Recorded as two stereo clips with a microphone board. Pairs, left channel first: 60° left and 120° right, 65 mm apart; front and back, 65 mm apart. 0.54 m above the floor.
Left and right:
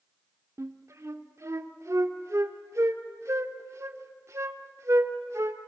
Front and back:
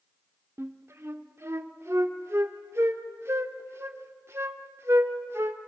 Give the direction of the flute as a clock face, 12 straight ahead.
5 o'clock.